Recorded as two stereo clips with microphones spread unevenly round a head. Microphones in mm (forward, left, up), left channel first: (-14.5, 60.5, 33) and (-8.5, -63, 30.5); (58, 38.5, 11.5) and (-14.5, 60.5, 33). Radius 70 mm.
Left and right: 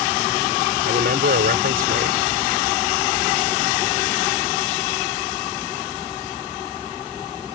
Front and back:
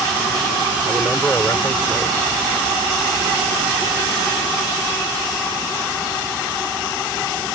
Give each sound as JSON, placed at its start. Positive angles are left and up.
{"t": 0.8, "sound": "a man speaking", "azimuth_deg": -100}